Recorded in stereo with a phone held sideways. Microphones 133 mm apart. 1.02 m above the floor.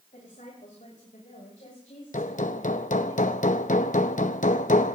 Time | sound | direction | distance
0.1 | a woman speaking | 70° left (ahead or behind) | 5 m
2.1 | hammering | 70° left (ahead or behind) | 0.7 m